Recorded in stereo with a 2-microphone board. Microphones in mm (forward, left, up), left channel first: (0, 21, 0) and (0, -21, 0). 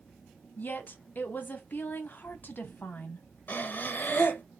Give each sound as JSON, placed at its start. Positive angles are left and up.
{"t": 0.6, "sound": "a woman speaking", "side_deg": 45, "distance_m": 0.7}
{"t": 3.5, "sound": "breathing", "side_deg": 45, "distance_m": 0.6}